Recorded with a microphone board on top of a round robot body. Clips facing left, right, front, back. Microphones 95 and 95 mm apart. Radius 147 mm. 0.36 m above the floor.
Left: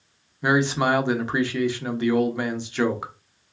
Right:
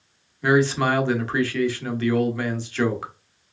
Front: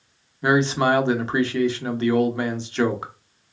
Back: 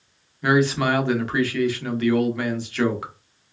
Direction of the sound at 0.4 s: 35° left.